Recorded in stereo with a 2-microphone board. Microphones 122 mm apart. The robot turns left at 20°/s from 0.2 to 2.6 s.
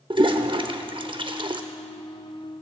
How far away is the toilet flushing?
About 0.6 m.